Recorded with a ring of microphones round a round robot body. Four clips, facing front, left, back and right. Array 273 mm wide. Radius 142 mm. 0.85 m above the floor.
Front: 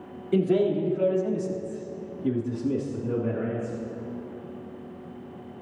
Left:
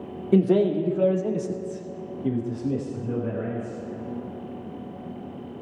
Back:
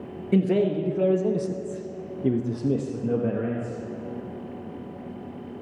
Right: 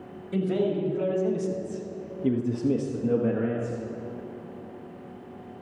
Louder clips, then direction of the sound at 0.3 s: Left 6 dB, even; 110° left.